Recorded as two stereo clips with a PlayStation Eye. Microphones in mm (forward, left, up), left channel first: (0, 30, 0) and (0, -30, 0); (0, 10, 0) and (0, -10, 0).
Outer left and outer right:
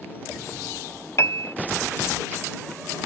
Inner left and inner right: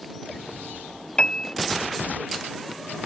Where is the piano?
55° left (ahead or behind).